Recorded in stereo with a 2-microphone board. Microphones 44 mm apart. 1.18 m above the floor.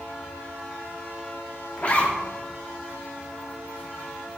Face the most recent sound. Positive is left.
turn(degrees=35)  # may be behind; listen again after turning